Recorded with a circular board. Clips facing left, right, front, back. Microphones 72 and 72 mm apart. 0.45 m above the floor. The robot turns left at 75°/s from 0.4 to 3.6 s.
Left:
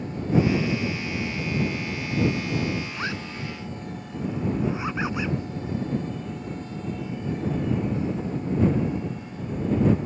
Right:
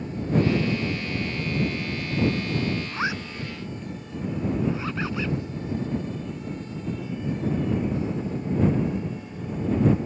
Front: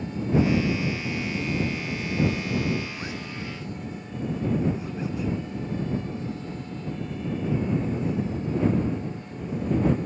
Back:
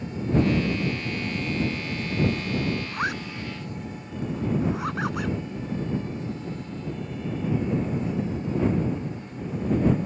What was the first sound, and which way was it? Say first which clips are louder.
A zipper: right 3 dB, back 6 dB; 145° right.